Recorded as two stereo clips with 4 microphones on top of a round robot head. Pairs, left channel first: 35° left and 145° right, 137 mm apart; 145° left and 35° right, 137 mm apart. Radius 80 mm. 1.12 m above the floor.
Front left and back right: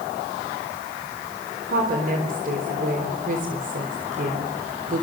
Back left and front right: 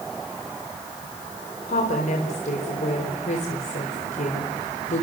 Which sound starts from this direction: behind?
A woman speaking, at 1.7 s.